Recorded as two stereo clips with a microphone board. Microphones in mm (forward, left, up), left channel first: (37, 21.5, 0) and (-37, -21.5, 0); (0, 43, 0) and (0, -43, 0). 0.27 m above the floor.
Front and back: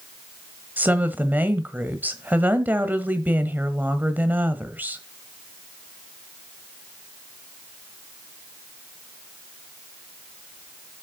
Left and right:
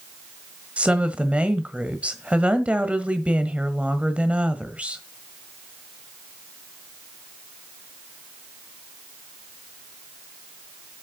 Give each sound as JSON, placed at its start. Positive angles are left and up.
{"t": 0.8, "sound": "a woman speaking", "azimuth_deg": -140, "distance_m": 1.3}